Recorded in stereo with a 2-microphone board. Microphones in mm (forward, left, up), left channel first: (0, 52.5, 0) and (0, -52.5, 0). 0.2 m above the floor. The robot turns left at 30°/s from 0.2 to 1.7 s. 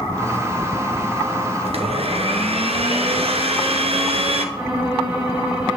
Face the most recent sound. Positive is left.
turn(degrees=-15)  # may be behind; listen again after turning